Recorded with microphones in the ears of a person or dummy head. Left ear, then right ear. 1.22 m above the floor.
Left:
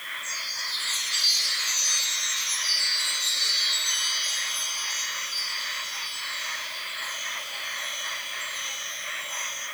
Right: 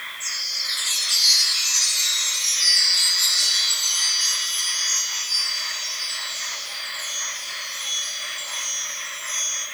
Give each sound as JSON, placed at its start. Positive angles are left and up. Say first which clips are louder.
{"t": 0.2, "sound": "a chime", "louder": "right 7 dB", "side_deg": -85, "distance_m": 7.0}